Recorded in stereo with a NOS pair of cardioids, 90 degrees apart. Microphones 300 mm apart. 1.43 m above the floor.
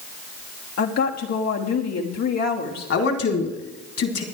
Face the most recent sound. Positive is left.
turn(degrees=50)